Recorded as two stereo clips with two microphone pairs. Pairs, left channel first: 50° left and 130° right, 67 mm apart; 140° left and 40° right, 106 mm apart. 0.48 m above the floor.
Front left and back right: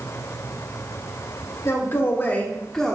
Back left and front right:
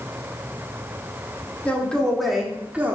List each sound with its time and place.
1.6 s a man speaking: 65° left, 1.4 m; by 3.0 s 40° right, 1.1 m